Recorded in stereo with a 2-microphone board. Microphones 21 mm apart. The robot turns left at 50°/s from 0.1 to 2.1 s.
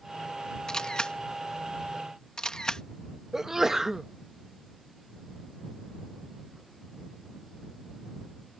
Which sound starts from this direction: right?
A sneeze, at 3.3 s.